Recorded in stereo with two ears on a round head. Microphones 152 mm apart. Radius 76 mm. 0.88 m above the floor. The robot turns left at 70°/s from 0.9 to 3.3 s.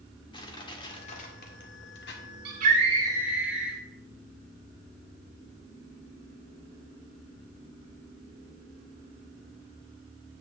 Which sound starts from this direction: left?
Crushing, at 0.3 s.